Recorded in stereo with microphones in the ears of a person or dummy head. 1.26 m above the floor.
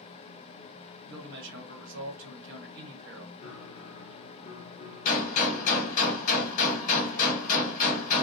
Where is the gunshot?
45° left (ahead or behind), 1.0 m.